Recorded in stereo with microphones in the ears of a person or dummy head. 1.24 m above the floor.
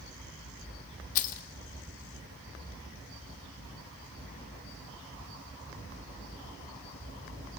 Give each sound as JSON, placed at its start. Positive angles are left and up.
{"t": 1.1, "sound": "keys jangling", "side_deg": 45, "distance_m": 1.3}